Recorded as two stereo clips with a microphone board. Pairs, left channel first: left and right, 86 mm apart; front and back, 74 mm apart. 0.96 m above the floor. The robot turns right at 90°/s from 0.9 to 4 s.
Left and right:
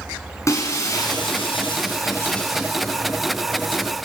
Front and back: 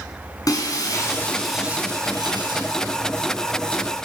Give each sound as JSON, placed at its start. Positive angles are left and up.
{"t": 0.5, "sound": "breaking glass", "azimuth_deg": 35, "distance_m": 5.0}